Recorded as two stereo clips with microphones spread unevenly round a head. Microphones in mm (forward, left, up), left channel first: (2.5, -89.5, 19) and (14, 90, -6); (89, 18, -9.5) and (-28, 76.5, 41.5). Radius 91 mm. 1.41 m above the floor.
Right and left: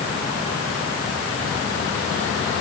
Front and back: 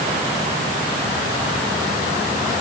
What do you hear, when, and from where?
Only background noise.